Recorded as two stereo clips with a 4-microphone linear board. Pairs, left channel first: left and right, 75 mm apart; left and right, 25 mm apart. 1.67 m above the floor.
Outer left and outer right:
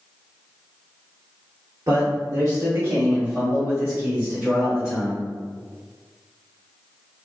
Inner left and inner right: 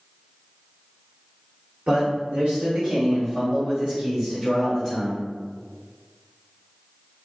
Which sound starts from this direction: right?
A man speaking, at 1.9 s.